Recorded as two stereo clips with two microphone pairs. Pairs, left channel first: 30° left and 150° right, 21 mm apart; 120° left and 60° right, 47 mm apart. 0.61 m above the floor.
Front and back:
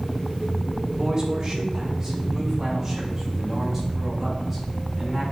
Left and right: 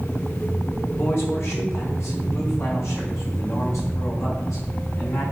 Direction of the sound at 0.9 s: 150° left.